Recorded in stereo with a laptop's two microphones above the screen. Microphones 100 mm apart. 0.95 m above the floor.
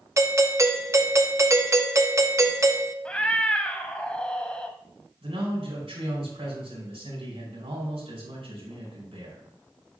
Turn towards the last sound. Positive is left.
turn(degrees=-70)  # may be behind; listen again after turning